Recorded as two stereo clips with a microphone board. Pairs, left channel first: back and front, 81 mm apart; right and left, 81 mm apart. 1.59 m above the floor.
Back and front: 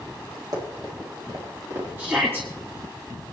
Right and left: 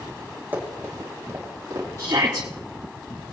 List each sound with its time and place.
0.5 s running footsteps: 25° left, 4 m; by 1.9 s 50° left, 4 m
2.0 s a shout: 60° left, 2 m